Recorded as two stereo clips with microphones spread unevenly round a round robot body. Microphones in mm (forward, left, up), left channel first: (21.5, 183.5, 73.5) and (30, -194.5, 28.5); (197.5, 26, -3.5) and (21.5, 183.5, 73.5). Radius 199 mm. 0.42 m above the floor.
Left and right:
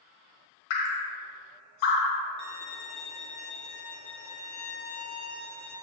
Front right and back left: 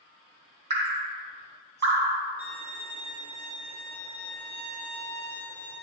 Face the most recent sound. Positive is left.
turn(degrees=-175)